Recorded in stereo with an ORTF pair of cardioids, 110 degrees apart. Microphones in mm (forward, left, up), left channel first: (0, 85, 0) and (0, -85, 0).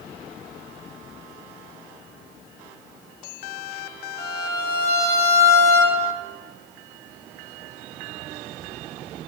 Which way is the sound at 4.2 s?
65° right.